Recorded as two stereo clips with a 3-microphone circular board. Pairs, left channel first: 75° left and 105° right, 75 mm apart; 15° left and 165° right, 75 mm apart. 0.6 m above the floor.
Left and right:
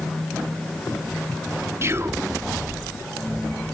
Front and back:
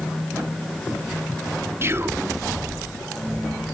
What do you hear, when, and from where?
1.8 s whispering: 130° right, 0.9 m